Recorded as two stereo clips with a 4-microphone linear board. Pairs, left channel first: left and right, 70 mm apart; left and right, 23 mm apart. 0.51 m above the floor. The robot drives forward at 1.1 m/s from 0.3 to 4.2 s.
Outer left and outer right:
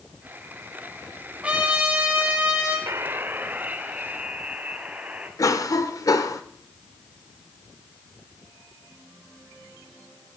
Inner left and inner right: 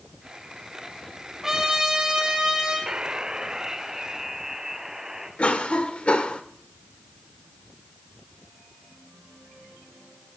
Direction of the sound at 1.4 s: 15° right (ahead or behind).